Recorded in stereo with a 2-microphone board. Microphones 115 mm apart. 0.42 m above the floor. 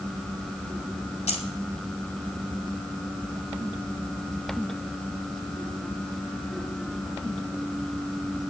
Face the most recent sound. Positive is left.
turn(degrees=65)  # may be behind; listen again after turning